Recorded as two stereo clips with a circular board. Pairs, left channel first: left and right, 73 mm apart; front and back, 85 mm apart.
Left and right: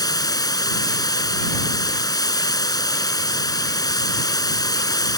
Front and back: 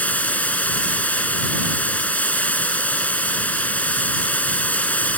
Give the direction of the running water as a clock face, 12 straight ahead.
10 o'clock.